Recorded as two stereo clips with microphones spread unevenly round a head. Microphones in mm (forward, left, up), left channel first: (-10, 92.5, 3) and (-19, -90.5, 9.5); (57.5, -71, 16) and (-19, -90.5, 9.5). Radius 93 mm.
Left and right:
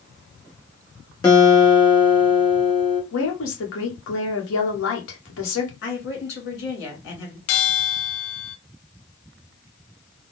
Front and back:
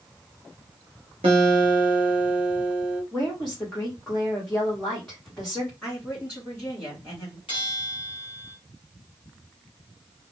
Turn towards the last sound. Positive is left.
turn(degrees=75)